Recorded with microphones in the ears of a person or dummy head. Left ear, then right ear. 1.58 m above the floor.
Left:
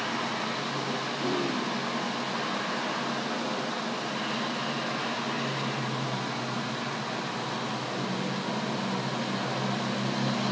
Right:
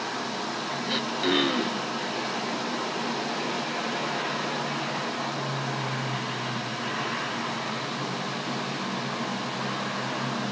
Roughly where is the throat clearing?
Right.